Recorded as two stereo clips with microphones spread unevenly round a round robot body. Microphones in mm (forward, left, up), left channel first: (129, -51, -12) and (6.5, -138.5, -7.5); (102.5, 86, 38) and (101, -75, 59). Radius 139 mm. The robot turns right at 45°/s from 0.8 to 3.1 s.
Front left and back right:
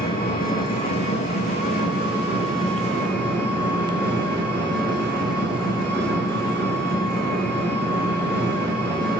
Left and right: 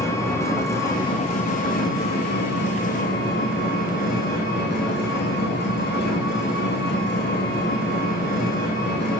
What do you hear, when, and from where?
0.0 s an engine running: 15° left, 6 m; by 9.2 s 120° left, 6 m